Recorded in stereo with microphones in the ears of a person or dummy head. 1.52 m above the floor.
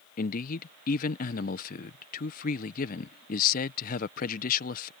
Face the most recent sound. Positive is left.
turn(degrees=55)  # may be behind; listen again after turning